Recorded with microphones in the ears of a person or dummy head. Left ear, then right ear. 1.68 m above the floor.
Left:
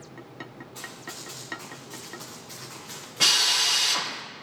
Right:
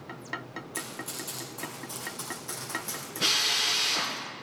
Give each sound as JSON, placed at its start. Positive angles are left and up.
{"t": 0.7, "sound": "running footsteps", "side_deg": -25, "distance_m": 2.5}
{"t": 3.2, "sound": "a drill", "side_deg": 40, "distance_m": 2.5}